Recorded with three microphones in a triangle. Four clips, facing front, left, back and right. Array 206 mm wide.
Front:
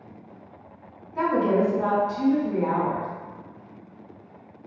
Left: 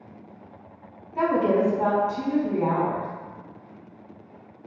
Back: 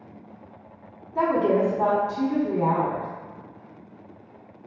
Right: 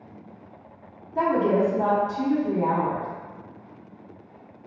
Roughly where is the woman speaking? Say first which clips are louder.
Even, back 1 dB; behind.